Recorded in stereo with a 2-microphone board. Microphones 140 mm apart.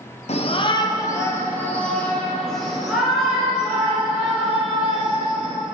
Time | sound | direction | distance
0.3 | a shout | 50° left (ahead or behind) | 0.7 m